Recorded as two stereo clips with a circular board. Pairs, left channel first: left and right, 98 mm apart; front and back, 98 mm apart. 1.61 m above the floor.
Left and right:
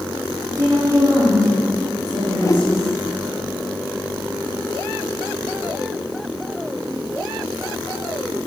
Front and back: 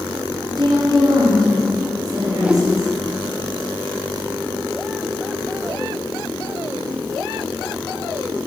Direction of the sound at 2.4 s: 110° left.